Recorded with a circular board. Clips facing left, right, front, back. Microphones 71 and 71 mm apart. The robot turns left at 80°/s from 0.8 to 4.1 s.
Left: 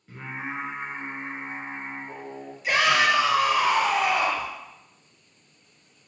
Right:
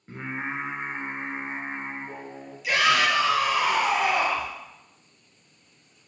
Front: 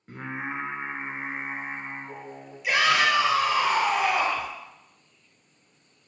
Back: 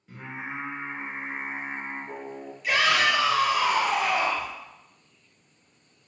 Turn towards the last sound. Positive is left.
turn(degrees=-40)